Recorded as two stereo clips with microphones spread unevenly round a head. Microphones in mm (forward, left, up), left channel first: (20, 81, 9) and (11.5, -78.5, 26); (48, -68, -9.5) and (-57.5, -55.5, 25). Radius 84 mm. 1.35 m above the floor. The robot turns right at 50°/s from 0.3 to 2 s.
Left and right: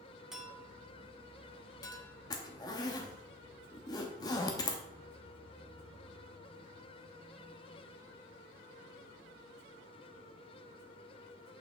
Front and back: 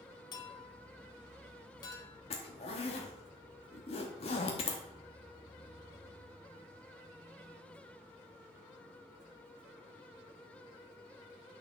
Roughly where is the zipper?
Ahead left.